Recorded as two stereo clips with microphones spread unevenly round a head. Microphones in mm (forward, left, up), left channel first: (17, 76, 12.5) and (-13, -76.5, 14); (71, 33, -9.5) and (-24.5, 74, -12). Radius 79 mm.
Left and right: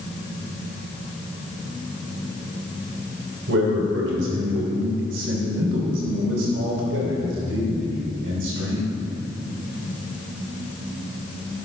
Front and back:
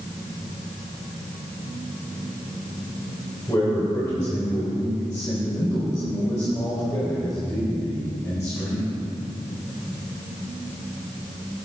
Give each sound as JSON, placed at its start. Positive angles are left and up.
{"t": 3.5, "sound": "a man speaking", "azimuth_deg": -95, "distance_m": 3.0}